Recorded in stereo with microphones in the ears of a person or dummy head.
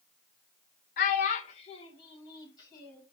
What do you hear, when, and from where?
1.0 s a child speaking: 50° left (ahead or behind), 0.9 m; by 3.0 s 20° left (ahead or behind), 2.5 m